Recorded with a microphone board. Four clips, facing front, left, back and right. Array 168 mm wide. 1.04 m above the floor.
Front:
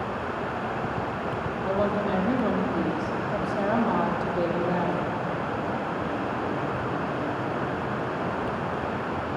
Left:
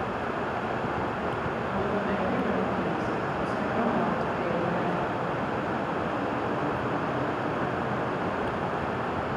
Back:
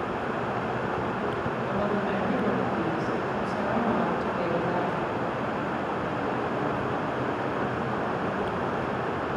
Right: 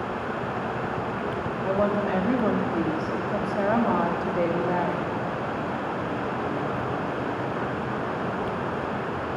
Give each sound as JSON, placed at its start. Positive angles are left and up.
{"t": 1.6, "sound": "a woman speaking", "azimuth_deg": -65, "distance_m": 2.0}